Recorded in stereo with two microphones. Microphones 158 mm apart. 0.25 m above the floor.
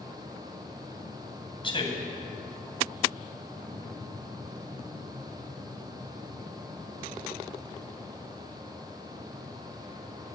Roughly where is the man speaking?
Left.